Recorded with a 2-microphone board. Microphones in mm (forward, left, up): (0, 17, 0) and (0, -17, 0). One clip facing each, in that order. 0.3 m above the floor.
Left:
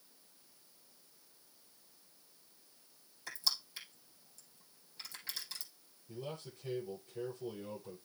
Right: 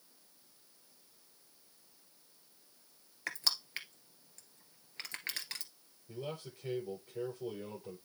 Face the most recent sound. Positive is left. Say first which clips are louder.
# right 2 dB
turn(degrees=-30)  # may be behind; listen again after turning